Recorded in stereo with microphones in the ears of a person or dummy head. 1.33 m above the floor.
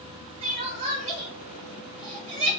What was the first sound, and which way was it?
Crying, 40° right (ahead or behind).